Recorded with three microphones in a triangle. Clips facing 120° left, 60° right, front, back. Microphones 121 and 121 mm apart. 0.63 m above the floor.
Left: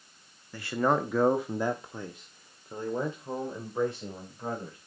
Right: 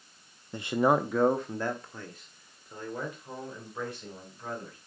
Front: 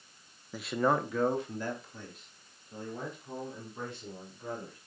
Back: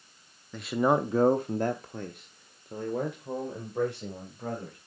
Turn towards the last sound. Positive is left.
turn(degrees=180)